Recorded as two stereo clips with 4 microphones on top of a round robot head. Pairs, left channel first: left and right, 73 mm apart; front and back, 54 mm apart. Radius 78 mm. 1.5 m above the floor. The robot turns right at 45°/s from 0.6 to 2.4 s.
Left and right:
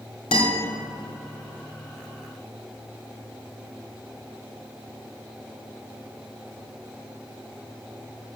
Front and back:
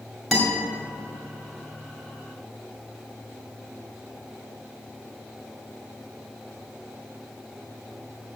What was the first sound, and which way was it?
A guitar, 90° left.